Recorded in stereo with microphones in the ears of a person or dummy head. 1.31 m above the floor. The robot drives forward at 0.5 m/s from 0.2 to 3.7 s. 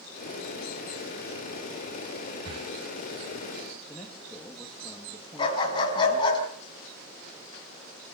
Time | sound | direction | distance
2.5 | breathing | 25° right (ahead or behind) | 0.6 m
3.9 | a man speaking | 5° left (ahead or behind) | 1.9 m
5.4 | a dog barking | 30° left (ahead or behind) | 5 m